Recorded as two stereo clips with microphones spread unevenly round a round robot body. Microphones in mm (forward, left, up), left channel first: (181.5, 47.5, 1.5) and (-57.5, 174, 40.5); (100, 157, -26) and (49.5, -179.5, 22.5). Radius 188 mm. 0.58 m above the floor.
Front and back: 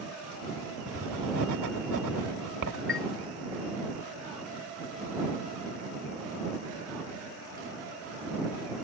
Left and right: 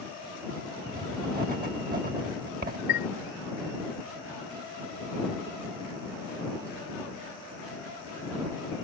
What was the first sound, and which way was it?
Writing, 170° right.